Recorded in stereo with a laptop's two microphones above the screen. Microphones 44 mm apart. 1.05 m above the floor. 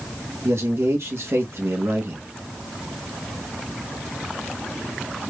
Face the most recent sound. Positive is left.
turn(degrees=-75)  # may be behind; listen again after turning